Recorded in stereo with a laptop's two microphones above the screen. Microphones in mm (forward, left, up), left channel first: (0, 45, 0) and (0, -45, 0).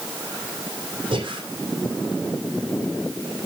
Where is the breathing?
80° right, 3 m.